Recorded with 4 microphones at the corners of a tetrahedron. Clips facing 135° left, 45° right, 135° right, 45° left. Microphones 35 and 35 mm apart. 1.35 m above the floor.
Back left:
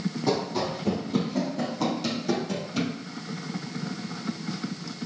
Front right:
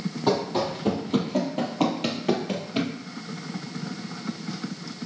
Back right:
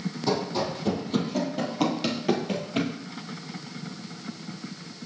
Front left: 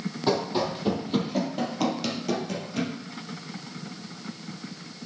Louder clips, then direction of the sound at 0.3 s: Front right 3 dB, front left 2 dB; 15° right.